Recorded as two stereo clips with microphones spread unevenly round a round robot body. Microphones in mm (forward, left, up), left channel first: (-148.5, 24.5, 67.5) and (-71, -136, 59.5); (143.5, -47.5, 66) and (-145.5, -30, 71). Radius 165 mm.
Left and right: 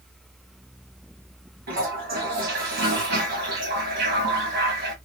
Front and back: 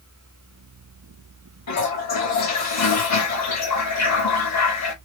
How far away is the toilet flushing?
About 2 m.